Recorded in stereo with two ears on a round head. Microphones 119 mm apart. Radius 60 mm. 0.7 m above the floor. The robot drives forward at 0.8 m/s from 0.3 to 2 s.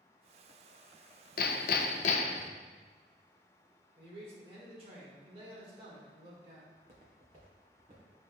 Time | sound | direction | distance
1.4 | hammering | 65° left (ahead or behind) | 0.5 m
4.0 | a man speaking | 40° right (ahead or behind) | 1.6 m
6.7 | footsteps | 45° right (ahead or behind) | 1.9 m